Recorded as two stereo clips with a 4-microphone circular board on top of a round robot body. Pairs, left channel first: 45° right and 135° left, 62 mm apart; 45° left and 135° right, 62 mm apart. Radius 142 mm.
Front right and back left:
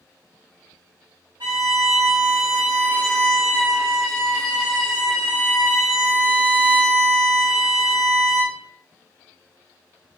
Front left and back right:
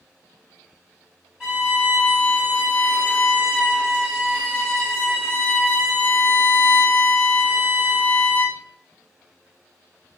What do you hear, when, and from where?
1.4 s a violin: 145° left, 1.0 m